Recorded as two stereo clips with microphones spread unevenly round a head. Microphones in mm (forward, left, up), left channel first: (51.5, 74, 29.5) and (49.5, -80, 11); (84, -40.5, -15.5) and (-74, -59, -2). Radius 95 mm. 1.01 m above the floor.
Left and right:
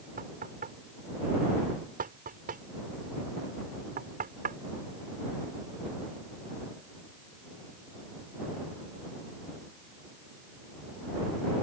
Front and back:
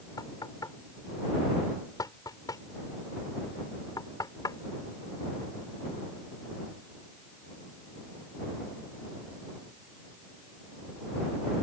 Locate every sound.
0.2 s knocking: 60° right